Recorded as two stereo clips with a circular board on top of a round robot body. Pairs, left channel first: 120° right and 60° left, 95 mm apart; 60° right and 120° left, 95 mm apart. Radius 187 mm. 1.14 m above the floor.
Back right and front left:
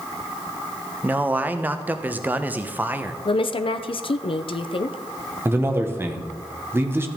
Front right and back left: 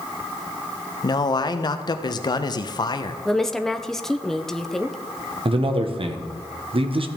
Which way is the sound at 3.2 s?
145° right.